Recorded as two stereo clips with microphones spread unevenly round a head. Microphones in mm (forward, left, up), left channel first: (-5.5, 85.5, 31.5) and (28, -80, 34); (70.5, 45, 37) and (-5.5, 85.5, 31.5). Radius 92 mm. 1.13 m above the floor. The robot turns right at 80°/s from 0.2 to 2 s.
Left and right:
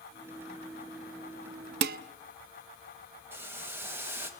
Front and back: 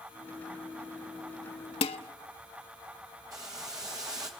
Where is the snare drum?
I don't hear a snare drum.